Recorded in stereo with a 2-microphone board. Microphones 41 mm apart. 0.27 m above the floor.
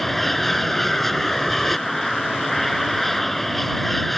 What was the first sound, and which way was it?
An aircraft, 5° left (ahead or behind).